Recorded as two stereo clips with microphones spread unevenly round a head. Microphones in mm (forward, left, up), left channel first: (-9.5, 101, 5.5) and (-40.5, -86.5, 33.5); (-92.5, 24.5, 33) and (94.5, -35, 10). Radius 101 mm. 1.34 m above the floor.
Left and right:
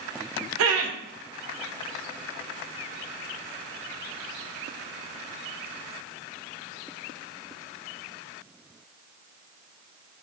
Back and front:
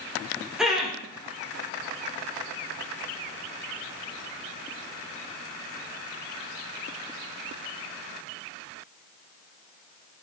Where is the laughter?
105° right, 0.8 m.